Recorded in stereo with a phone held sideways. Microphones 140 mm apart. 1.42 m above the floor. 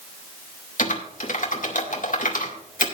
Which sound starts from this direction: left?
Typing on a keyboard, at 0.8 s.